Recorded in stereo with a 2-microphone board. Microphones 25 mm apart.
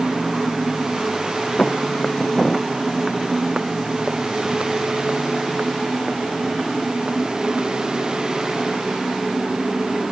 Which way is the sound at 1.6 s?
25° left (ahead or behind).